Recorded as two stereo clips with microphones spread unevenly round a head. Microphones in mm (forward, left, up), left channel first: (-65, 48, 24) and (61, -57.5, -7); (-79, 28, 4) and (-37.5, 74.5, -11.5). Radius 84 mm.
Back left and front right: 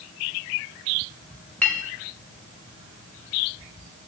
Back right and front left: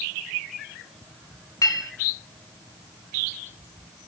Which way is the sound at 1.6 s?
140° right.